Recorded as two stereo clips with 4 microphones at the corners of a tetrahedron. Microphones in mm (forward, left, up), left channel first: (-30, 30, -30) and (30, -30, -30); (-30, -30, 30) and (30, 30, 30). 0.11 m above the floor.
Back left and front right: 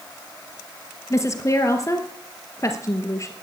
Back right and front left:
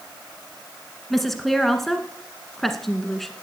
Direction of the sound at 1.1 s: 140° left.